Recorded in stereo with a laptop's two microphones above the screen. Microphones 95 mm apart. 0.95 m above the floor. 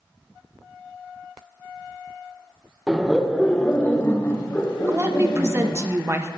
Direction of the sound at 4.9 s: 30° right (ahead or behind).